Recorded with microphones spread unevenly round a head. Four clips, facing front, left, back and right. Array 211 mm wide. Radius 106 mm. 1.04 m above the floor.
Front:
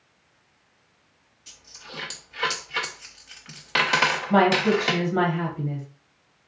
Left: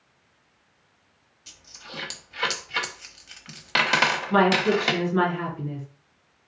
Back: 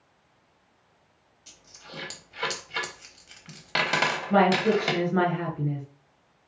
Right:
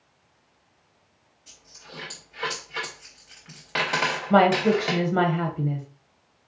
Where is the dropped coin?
115° left, 0.9 m.